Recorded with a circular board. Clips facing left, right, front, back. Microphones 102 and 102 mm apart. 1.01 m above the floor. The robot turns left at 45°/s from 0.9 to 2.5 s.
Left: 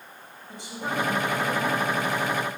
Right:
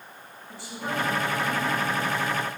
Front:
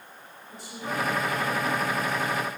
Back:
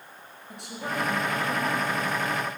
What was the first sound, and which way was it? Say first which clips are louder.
A woman speaking: left 1 dB, even; 160° left.